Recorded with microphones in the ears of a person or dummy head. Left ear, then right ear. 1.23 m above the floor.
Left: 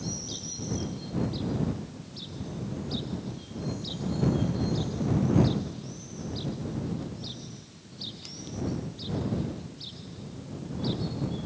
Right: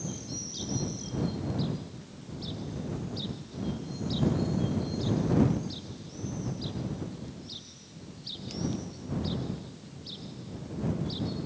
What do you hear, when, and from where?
Only background noise.